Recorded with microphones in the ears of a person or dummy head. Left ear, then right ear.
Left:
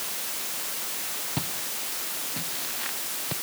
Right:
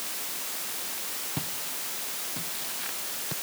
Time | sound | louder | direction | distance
1.4 | footsteps | left 3 dB | 5° left (ahead or behind) | ?